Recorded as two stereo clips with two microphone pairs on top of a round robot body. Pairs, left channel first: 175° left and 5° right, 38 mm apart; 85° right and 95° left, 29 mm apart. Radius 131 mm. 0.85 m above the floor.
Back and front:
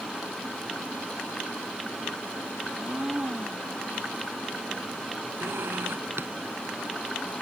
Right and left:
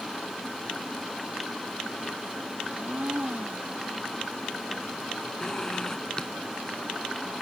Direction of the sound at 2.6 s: 55° left.